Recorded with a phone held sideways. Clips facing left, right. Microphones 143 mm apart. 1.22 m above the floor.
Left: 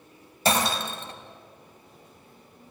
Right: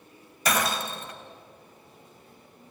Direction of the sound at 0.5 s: 30° left (ahead or behind).